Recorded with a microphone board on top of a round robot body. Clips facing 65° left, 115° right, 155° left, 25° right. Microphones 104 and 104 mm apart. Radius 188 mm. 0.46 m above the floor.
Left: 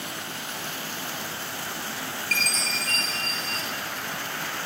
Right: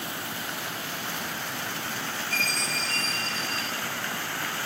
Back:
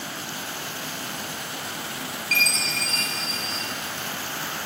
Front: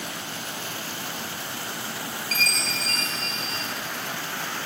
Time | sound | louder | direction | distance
2.3 | a chime | left 2 dB, back 2 dB | 60° left | 2.5 m